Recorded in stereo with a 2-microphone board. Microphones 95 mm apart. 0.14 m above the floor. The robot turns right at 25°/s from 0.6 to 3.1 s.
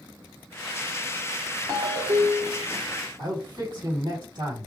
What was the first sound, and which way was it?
A ringtone, 45° right (ahead or behind).